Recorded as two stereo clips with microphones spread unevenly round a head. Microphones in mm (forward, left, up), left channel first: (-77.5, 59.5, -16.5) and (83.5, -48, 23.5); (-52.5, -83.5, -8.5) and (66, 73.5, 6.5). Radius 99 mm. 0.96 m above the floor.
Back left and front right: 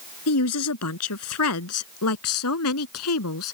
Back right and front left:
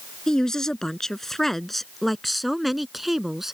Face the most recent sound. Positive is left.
turn(degrees=140)